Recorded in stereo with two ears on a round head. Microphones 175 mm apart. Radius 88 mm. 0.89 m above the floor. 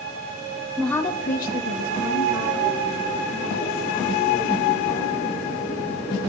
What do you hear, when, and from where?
0.8 s a woman speaking: 5° right (ahead or behind), 0.7 m; by 5.6 s 85° left, 5.5 m